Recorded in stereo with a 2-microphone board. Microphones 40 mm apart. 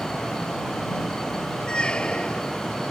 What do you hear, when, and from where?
1.7 s a squeak: 25° left (ahead or behind)